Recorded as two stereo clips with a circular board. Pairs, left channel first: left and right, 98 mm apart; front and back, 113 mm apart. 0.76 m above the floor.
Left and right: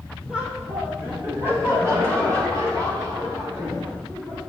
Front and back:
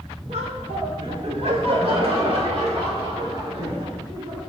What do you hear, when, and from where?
0.3 s laughter: 170° right, 2 m; by 4.4 s 140° right, 6 m